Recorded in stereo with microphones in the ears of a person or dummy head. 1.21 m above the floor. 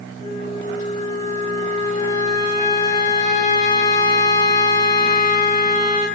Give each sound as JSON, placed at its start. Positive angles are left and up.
{"t": 0.2, "sound": "a flute", "side_deg": 20, "distance_m": 1.1}